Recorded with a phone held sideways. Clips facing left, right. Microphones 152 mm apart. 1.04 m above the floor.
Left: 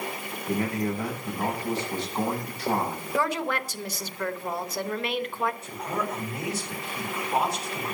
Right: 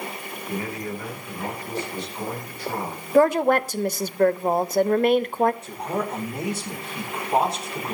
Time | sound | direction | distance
0.5 | a man speaking | 85° left | 8.5 m
3.1 | a woman speaking | 50° right (ahead or behind) | 0.8 m
5.6 | a man speaking | 30° right (ahead or behind) | 4 m